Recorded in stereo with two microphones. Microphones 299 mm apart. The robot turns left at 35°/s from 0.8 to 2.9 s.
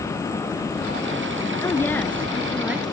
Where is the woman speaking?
10° left (ahead or behind), 1.2 m; by 2.8 s 5° right (ahead or behind), 1.2 m.